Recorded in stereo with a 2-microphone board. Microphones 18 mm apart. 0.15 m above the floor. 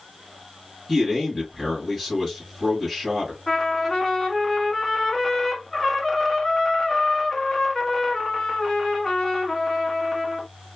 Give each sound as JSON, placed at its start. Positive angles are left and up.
{"t": 0.9, "sound": "a man speaking", "side_deg": 0, "distance_m": 2.5}
{"t": 3.5, "sound": "a trumpet", "side_deg": 25, "distance_m": 1.0}